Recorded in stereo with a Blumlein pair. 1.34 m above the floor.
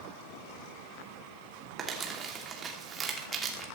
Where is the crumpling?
20° right, 2.5 m.